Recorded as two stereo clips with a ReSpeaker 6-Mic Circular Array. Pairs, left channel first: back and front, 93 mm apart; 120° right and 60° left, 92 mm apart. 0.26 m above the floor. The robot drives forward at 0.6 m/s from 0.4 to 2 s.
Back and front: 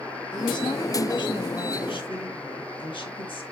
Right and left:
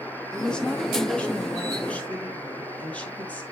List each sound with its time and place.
0.3 s a woman speaking: 160° left, 2.5 m; by 3.4 s 165° left, 3.5 m